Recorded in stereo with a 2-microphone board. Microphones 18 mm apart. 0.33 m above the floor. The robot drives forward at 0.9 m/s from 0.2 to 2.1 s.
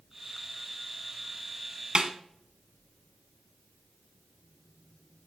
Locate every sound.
1.9 s a snare drum: 50° right (ahead or behind), 1.2 m; by 2.1 s 45° right (ahead or behind), 1.3 m